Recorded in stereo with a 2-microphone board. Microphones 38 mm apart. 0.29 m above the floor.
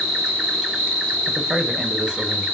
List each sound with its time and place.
0.0 s an insect: 15° right (ahead or behind), 0.8 m
1.3 s a man speaking: 20° right (ahead or behind), 1.0 m